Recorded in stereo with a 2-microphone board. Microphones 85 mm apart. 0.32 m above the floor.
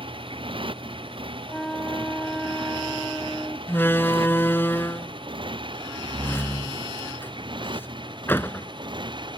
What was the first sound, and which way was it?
A motorcycle, 90° right.